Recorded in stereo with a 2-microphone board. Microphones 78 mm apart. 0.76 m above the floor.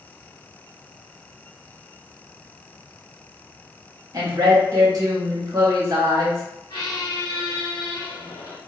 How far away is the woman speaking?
About 1.0 m.